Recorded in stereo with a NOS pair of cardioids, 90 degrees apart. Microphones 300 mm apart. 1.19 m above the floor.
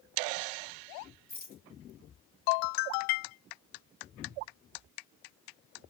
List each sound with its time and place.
1.3 s a rattle: 30° left, 2 m